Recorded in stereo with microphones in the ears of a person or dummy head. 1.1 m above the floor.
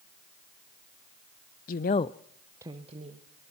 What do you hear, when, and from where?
1.7 s a woman speaking: 50° left (ahead or behind), 0.7 m; by 3.5 s 40° right (ahead or behind), 1.4 m